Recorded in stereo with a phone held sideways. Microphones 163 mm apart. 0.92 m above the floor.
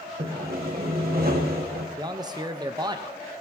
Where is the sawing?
70° right (ahead or behind), 1.5 m.